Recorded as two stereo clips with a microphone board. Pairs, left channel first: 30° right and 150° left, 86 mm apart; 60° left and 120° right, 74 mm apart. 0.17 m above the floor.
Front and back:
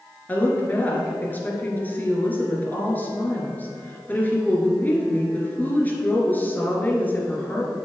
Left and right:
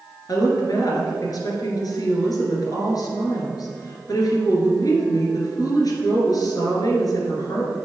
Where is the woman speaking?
35° left, 2 m.